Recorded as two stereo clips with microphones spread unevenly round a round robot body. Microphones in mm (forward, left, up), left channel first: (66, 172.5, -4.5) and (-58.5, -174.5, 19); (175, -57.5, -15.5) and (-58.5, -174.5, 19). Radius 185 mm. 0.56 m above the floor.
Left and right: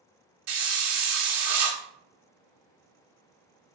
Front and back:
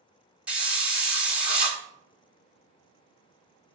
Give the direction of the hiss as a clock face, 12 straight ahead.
2 o'clock.